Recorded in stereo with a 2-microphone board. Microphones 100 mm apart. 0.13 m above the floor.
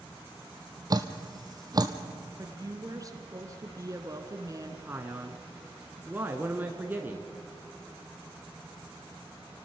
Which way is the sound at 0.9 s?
40° right (ahead or behind).